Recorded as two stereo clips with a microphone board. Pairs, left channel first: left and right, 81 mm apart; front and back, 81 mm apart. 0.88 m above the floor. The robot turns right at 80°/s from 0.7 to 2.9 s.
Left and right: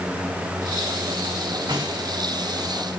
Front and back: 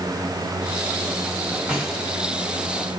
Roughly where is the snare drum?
Right.